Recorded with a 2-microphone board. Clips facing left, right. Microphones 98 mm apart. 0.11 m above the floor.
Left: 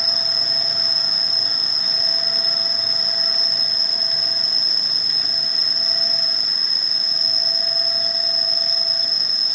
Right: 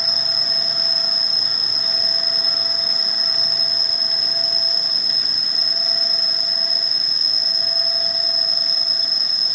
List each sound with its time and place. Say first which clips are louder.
0.0 s an insect: even; 5° right (ahead or behind)